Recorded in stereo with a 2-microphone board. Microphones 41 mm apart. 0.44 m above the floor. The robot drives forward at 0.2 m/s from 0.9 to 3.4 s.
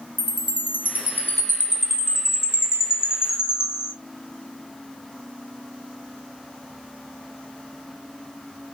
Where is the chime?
50° left (ahead or behind), 1.2 m; by 3.9 s 70° left (ahead or behind), 1.0 m.